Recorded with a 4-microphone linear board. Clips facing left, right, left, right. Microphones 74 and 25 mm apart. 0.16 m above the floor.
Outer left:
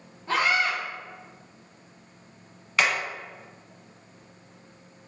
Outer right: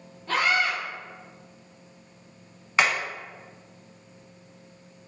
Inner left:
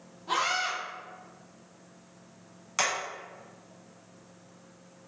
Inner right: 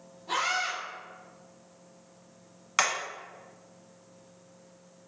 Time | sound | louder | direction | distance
0.3 | a scream | even, inner left 1 dB | 20° left (ahead or behind) | 1.2 m
2.8 | hammering | outer right 1 dB, inner right 2 dB | 25° right (ahead or behind) | 1.2 m